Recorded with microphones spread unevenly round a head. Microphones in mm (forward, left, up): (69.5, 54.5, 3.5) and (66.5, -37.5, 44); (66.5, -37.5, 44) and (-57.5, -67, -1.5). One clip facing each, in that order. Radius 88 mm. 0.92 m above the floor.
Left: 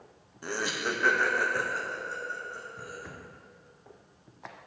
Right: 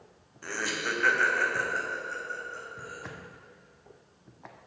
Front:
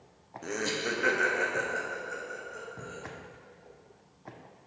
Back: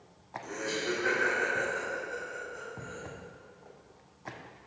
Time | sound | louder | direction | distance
0.4 | laughter | left 1 dB, front 1 dB | 50° left | 0.6 m